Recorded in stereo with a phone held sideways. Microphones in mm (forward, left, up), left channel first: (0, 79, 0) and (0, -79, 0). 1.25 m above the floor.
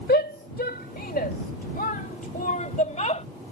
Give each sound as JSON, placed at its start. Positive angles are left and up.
{"t": 0.1, "sound": "a shout", "side_deg": 80}